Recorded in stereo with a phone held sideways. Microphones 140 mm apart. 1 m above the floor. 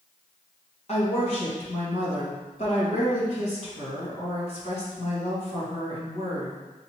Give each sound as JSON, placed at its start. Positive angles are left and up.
{"t": 0.9, "sound": "a woman speaking", "side_deg": 50, "distance_m": 1.7}